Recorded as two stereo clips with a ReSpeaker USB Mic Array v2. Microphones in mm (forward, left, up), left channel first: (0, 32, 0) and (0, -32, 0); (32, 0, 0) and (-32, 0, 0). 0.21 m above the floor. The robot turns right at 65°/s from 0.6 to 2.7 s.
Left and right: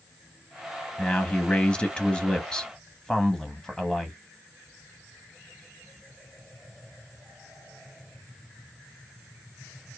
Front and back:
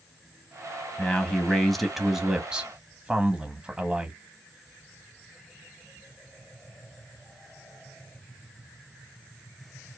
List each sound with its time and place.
1.0 s a man speaking: 35° left, 1.0 m; by 4.2 s 150° left, 1.0 m